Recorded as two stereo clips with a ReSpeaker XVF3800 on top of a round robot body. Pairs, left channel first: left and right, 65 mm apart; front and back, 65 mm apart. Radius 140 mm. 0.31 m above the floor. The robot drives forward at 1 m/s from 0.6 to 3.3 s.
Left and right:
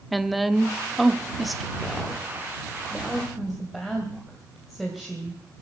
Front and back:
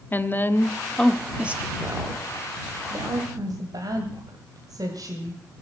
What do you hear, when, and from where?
0.1 s a woman speaking: straight ahead, 1.2 m; by 5.4 s straight behind, 2.5 m